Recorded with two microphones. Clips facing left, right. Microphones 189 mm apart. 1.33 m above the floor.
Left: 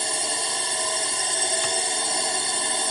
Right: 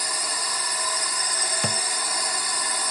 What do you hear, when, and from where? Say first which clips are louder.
0.0 s a drone: left 4 dB; 25° left (ahead or behind)
1.6 s a thud: left 1 dB; 60° right (ahead or behind)